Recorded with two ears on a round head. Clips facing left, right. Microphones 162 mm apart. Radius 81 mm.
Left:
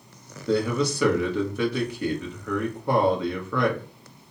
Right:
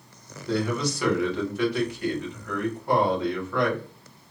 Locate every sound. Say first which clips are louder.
0.5 s a man speaking: left 3 dB; 75° left (ahead or behind), 1.2 m